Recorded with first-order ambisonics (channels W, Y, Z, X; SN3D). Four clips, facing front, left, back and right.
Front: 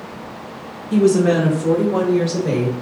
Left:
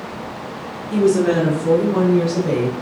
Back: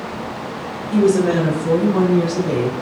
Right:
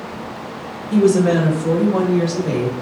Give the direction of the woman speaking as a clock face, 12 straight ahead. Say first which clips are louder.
Right 1 dB, front 1 dB; 12 o'clock.